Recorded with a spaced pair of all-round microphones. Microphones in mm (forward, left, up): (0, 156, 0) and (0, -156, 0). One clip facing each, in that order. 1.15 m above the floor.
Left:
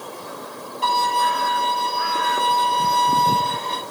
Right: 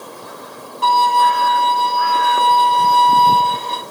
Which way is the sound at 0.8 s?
60° right (ahead or behind).